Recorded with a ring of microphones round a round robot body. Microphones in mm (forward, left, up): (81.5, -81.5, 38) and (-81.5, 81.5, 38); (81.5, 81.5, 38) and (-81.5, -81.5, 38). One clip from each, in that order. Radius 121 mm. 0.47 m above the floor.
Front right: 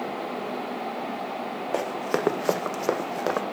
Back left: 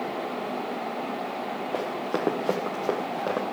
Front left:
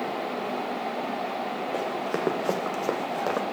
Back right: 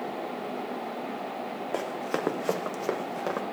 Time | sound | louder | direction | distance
1.7 | running footsteps | front right 3 dB, even | 65° right | 2 m